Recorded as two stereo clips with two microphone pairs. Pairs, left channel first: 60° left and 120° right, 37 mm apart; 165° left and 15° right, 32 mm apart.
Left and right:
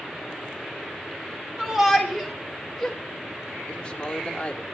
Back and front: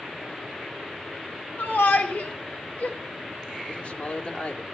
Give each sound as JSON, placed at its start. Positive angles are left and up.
{"t": 1.6, "sound": "a shout", "azimuth_deg": 160, "distance_m": 5.0}
{"t": 3.7, "sound": "a man speaking", "azimuth_deg": 125, "distance_m": 2.5}